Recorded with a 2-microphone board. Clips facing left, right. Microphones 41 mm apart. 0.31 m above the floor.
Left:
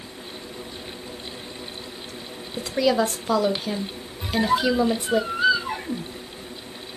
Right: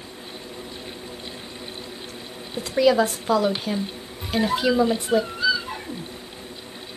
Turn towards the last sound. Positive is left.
turn(degrees=40)  # may be behind; listen again after turning